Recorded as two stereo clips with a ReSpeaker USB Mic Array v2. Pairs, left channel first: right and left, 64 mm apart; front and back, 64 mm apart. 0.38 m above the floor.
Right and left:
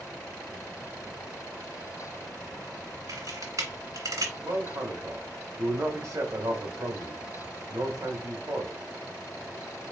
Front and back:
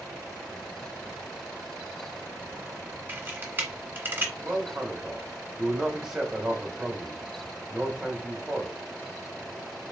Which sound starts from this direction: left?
A man speaking, at 4.4 s.